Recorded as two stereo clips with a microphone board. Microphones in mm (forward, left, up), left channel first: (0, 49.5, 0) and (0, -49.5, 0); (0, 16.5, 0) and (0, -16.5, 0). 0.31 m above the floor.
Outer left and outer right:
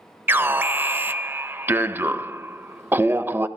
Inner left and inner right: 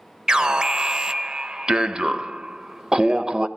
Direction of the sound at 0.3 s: 20° right (ahead or behind).